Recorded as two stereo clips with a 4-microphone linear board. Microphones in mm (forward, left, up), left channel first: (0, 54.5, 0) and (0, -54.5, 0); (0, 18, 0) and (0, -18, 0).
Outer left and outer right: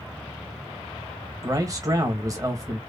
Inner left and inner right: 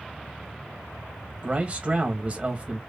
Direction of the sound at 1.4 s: 30° right (ahead or behind).